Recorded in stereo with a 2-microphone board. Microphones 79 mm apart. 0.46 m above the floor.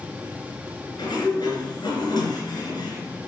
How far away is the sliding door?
About 3.5 m.